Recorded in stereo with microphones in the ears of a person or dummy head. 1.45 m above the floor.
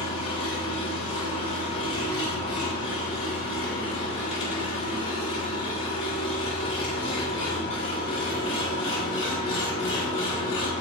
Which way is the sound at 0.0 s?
30° left (ahead or behind).